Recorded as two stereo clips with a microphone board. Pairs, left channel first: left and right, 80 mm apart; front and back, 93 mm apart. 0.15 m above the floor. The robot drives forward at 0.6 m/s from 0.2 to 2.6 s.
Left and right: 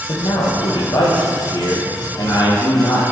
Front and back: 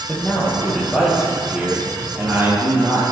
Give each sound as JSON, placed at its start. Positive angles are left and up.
{"t": 0.1, "sound": "a man speaking", "azimuth_deg": 85, "distance_m": 2.5}